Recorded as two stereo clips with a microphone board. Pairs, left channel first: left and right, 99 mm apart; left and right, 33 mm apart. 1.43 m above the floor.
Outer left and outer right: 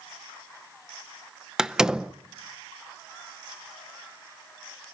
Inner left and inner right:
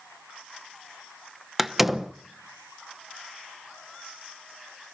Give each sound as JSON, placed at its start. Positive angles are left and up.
{"t": 1.6, "sound": "a door slam", "side_deg": -5, "distance_m": 0.7}